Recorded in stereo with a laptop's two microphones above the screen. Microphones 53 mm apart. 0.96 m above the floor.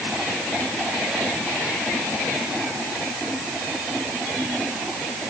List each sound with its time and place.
Only background noise.